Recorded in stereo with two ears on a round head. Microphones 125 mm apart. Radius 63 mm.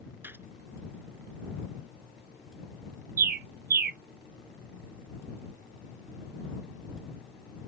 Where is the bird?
65° right (ahead or behind).